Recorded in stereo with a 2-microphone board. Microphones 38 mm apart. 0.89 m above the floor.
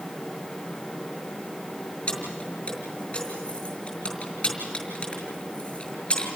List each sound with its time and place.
2.1 s keys jangling: 30° left (ahead or behind), 5.5 m